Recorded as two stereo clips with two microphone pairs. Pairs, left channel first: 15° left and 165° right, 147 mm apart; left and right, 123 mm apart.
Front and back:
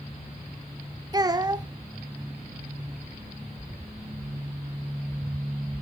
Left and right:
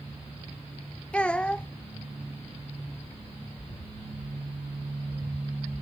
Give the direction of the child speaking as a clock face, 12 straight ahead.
7 o'clock.